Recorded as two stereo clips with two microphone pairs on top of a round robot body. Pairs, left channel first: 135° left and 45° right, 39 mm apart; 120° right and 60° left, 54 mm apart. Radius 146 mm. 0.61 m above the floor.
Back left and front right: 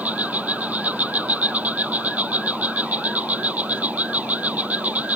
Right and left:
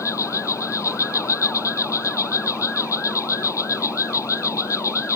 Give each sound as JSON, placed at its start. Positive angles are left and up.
{"t": 0.0, "sound": "an insect", "azimuth_deg": -95}